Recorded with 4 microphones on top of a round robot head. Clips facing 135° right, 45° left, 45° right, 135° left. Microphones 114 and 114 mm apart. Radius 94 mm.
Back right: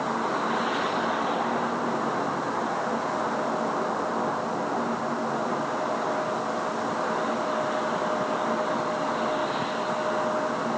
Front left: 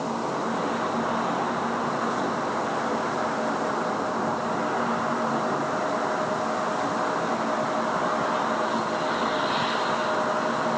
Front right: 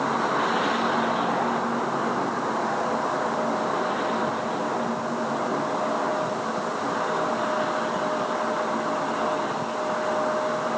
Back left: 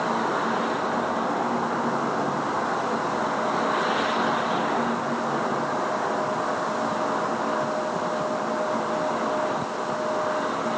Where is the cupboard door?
No cupboard door in this recording.